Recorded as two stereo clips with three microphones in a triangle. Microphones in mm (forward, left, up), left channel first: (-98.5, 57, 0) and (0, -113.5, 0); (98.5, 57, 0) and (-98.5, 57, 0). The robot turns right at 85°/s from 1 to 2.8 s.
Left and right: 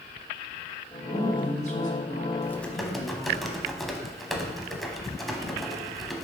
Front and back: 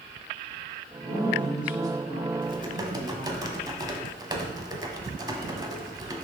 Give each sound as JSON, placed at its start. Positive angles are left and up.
{"t": 1.0, "sound": "a woman speaking", "azimuth_deg": 45, "distance_m": 1.5}
{"t": 2.4, "sound": "typing on a keyboard", "azimuth_deg": 175, "distance_m": 0.8}